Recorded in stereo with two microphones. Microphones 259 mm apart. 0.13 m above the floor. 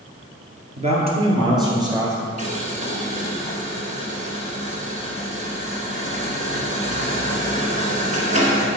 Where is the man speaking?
25° right (ahead or behind), 2 m; by 2.3 s 10° right (ahead or behind), 3 m.